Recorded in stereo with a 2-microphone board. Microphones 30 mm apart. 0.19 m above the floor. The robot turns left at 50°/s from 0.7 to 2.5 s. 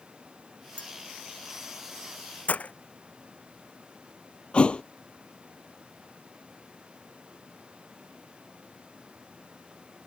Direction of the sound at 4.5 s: 35° left (ahead or behind).